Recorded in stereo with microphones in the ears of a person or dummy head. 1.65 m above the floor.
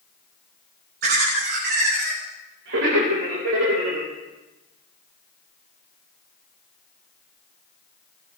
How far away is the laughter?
About 3.5 m.